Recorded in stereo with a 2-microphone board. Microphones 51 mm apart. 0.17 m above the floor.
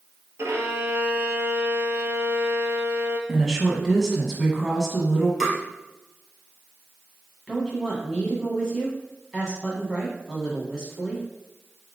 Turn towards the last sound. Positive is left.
turn(degrees=5)  # may be behind; listen again after turning